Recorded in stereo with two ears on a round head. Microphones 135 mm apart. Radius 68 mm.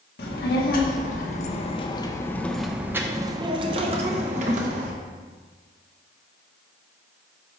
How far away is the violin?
I don't hear a violin.